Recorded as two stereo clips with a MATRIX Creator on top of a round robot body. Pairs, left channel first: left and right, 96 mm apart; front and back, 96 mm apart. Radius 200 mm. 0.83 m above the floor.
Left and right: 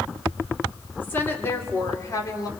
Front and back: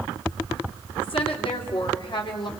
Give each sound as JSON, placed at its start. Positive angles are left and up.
{"t": 1.0, "sound": "a woman speaking", "azimuth_deg": 20, "distance_m": 3.5}